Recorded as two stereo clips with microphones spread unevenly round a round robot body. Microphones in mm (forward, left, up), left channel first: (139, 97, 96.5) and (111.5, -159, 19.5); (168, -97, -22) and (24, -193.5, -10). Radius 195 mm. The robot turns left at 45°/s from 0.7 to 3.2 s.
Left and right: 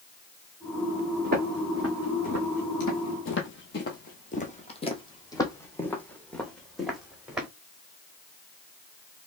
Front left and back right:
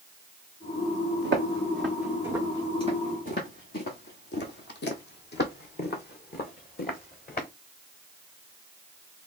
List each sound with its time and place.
1.2 s footsteps: 155° right, 1.6 m; by 7.5 s 5° right, 2 m